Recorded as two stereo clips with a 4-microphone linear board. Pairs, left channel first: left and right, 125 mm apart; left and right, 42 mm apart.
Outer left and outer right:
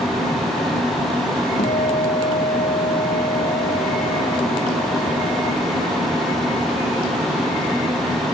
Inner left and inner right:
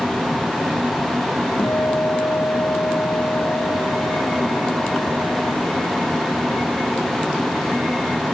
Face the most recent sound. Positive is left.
turn(degrees=85)